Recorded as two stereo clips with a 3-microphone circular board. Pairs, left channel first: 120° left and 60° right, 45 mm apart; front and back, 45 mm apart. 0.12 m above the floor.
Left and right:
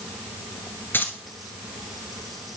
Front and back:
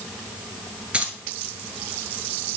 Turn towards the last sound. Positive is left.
turn(degrees=120)